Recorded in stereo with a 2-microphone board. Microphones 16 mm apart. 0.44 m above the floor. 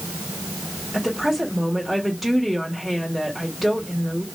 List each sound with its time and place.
0.9 s a woman speaking: 10° right (ahead or behind), 1.9 m